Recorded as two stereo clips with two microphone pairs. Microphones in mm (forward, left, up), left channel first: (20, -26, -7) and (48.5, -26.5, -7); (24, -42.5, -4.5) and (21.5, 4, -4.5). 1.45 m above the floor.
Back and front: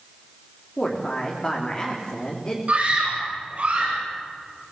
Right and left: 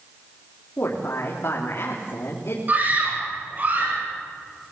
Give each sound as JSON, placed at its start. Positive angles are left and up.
{"t": 0.8, "sound": "a woman speaking", "azimuth_deg": -115, "distance_m": 3.5}
{"t": 2.7, "sound": "a scream", "azimuth_deg": 40, "distance_m": 9.5}